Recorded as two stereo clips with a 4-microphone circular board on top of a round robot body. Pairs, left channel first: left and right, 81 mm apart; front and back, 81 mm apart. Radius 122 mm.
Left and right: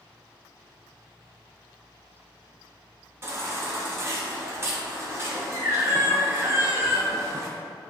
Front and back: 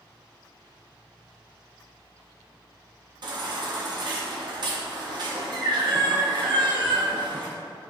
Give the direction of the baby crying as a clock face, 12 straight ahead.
5 o'clock.